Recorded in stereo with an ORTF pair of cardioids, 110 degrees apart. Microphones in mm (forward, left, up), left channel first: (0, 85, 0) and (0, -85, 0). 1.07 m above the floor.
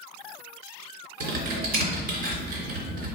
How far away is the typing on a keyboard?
About 3 m.